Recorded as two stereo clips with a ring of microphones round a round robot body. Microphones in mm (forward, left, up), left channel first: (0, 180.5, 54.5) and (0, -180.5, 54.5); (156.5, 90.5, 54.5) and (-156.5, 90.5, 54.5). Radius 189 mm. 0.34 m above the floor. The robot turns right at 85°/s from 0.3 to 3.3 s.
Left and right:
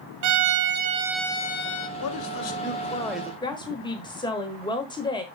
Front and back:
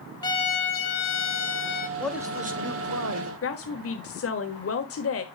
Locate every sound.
0.2 s a violin: 75° right, 1.0 m; by 1.9 s 60° left, 1.0 m
2.0 s a man speaking: 80° left, 1.7 m; by 3.3 s 170° right, 1.7 m
3.4 s a woman speaking: 15° left, 1.4 m